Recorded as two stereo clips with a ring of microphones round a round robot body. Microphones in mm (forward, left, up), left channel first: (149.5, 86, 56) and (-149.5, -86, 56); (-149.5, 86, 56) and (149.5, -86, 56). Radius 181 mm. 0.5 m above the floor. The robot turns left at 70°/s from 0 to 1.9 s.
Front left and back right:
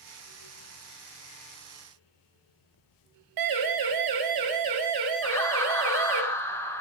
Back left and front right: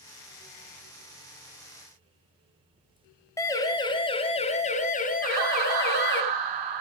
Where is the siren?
130° right, 4 m; by 6.2 s 150° right, 4.5 m.